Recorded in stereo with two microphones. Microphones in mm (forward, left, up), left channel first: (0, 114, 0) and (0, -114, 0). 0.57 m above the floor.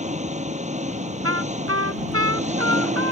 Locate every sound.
0.0 s an engine running: 30° right (ahead or behind)
1.2 s a trumpet: 80° right